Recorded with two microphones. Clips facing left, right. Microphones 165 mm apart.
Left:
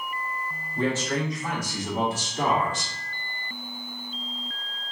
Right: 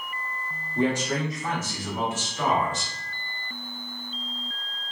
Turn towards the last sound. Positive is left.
turn(degrees=60)  # may be behind; listen again after turning